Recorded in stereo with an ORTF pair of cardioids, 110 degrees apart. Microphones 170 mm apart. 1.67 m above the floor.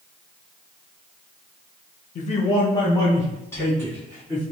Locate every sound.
2.1 s a man speaking: 50° left, 0.8 m; by 4.4 s 10° left, 3.5 m